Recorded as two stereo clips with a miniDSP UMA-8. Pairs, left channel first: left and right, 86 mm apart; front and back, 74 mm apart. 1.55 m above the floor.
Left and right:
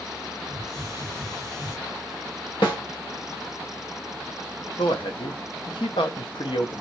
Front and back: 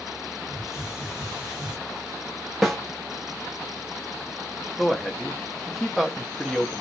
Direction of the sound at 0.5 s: 105° left.